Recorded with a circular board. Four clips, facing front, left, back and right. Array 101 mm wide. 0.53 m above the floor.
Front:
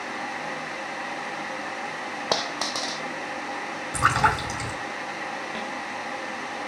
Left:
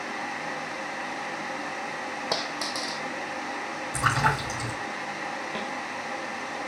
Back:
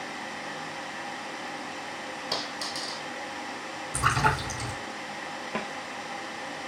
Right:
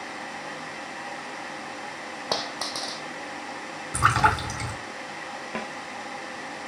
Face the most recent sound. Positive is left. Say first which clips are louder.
# right 4 dB, front 1 dB
turn(degrees=-130)